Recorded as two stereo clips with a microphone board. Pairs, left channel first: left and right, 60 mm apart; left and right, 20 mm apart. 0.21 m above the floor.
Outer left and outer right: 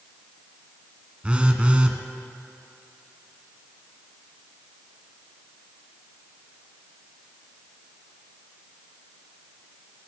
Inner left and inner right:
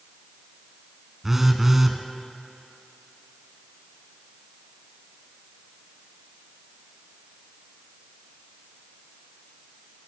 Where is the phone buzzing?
20° right (ahead or behind), 0.6 m.